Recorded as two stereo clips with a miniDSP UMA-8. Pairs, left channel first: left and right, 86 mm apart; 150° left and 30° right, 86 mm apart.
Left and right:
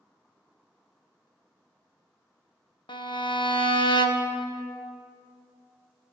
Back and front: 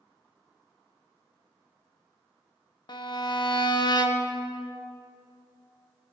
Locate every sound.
2.9 s a violin: 115° left, 0.5 m